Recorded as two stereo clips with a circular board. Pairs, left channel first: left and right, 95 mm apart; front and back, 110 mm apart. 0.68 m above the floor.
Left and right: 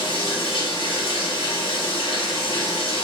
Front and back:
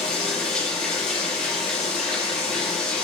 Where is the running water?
80° left, 0.9 m.